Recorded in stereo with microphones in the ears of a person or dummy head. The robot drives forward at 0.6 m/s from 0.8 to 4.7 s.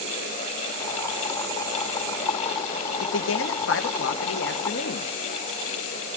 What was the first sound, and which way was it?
A man speaking, 60° left (ahead or behind).